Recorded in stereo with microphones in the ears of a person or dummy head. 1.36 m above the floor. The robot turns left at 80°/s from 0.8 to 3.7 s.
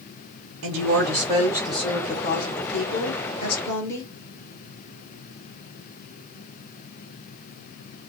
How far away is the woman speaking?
About 1.8 m.